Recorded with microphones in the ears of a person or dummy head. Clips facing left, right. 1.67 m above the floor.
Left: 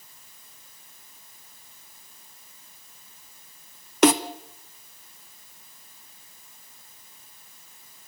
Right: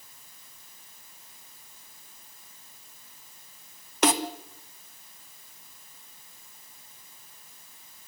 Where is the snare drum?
55° left (ahead or behind), 1.3 m.